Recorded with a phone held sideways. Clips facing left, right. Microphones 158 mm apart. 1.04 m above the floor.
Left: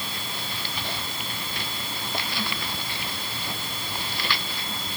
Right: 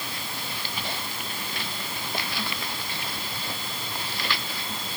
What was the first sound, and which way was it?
Only background noise.